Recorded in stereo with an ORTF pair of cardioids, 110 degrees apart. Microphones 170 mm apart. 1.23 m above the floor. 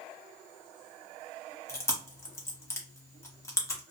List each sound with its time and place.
1.7 s chewing: 15° left, 1.1 m